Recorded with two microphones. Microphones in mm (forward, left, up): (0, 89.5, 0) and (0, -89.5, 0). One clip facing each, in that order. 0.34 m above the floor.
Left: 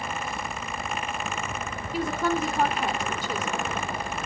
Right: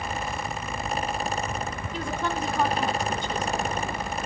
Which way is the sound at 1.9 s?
5° left (ahead or behind).